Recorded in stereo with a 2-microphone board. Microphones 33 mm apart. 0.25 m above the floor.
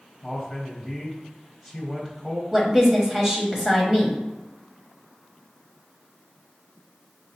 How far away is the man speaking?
About 1.2 m.